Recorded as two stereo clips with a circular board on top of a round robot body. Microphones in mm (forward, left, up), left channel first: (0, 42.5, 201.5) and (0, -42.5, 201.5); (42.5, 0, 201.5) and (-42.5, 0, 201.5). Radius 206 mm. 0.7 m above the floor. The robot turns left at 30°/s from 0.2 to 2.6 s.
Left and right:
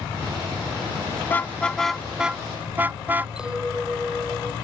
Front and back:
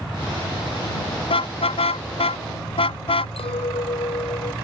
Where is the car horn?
20° left; by 3.3 s 20° right.